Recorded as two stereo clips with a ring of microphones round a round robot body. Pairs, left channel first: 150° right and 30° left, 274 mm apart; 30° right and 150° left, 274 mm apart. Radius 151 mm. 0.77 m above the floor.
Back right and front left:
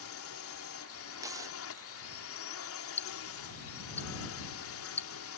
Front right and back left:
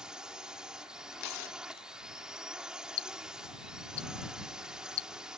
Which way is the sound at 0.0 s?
125° right.